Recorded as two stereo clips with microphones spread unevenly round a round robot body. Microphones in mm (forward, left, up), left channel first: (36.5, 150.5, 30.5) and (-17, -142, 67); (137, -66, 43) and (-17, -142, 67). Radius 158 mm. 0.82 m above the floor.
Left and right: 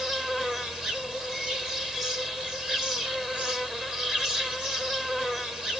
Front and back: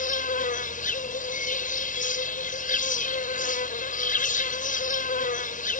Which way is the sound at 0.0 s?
10° right.